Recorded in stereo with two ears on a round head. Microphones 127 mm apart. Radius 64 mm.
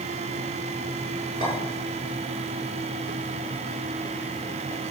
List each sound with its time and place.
1.4 s a clink: 35° right (ahead or behind), 5 m